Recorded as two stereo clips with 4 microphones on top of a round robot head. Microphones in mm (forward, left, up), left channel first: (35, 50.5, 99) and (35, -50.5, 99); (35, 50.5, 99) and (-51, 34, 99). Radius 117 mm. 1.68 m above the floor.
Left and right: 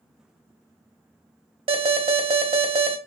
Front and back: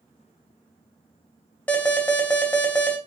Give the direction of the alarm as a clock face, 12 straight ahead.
2 o'clock.